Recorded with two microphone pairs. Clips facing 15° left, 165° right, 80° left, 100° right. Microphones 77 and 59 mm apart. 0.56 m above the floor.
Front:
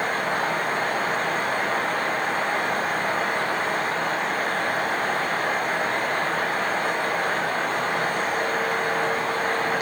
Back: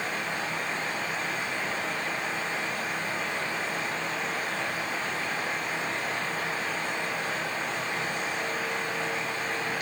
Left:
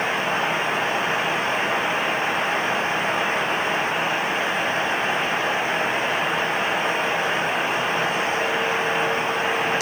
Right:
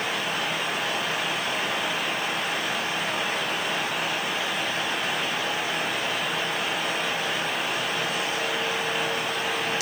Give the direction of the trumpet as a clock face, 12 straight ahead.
I don't hear a trumpet.